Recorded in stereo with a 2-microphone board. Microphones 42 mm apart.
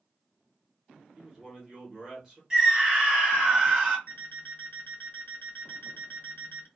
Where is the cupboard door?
No cupboard door in this recording.